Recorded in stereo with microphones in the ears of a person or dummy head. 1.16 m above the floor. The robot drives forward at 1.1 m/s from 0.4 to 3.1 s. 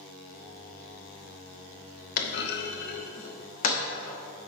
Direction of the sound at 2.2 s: 55° left (ahead or behind).